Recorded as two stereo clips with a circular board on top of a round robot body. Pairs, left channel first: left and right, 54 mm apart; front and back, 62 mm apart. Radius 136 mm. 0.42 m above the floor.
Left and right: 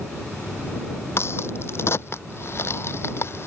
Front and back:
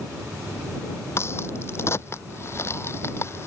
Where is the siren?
I don't hear a siren.